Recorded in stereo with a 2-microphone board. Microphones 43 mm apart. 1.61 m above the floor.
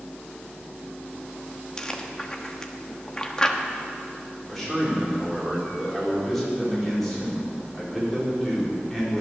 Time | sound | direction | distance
1.8 | chewing | 20° left (ahead or behind) | 1.1 m
4.5 | a man speaking | 5° left (ahead or behind) | 6 m